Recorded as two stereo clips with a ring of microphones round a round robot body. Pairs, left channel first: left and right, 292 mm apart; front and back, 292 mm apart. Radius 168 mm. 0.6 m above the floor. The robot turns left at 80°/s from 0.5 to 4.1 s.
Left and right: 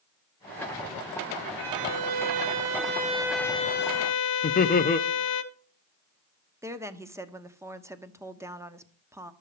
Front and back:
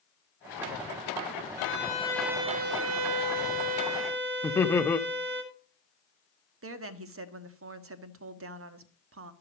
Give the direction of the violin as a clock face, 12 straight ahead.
1 o'clock.